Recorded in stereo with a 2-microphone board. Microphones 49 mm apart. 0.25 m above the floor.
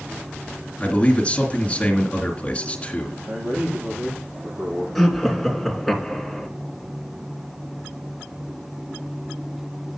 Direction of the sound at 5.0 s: Centre (ahead or behind).